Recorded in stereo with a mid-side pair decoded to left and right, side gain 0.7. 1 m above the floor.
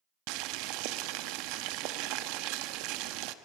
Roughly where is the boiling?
Right.